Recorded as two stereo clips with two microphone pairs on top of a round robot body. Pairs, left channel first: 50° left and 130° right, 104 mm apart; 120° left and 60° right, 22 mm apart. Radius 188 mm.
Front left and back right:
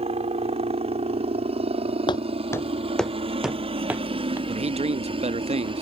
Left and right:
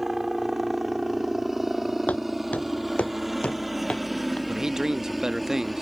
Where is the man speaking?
125° right.